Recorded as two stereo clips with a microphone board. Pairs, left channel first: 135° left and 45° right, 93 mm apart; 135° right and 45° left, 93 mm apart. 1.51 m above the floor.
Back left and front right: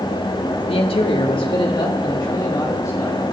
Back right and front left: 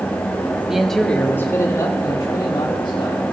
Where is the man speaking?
130° left, 1.9 m; by 3.2 s 170° right, 4.5 m.